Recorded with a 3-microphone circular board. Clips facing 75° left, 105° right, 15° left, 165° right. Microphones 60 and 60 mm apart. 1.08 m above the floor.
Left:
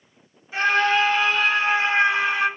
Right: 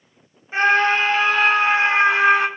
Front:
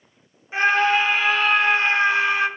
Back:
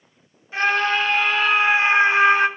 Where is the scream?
55° right, 3 m; by 2.5 s 115° right, 2 m.